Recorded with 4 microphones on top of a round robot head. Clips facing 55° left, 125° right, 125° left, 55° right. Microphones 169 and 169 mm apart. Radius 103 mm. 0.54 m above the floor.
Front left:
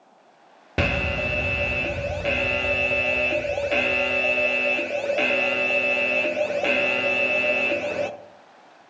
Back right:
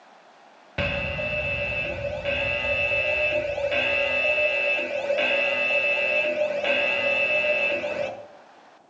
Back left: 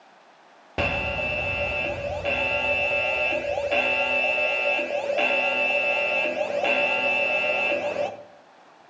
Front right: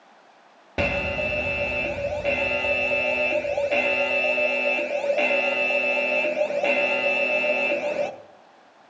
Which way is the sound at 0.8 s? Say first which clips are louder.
Front left 3 dB, front right 2 dB; 25° left.